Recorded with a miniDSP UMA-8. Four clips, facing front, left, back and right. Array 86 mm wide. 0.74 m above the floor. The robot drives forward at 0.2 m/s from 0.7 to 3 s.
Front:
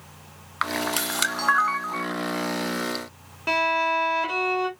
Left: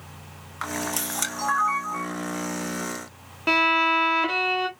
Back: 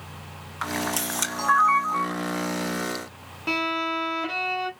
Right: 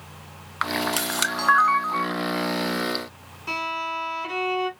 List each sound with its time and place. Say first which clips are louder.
0.6 s a camera shutter: right 4 dB, front 2 dB; 35° right, 1.4 m; by 2.1 s 50° right, 1.3 m
3.5 s a violin: left 7 dB, front 4 dB; 75° left, 0.9 m